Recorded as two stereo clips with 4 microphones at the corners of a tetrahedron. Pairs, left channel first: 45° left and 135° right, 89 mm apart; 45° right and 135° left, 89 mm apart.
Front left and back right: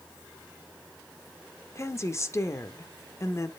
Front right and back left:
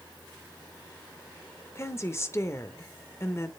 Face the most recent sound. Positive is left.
turn(degrees=0)